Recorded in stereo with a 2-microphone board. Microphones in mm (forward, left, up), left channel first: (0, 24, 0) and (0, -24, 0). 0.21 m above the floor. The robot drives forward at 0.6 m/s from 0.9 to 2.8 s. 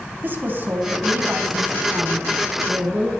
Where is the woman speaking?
45° right (ahead or behind), 1.6 m; by 3.1 s 35° right (ahead or behind), 1.9 m.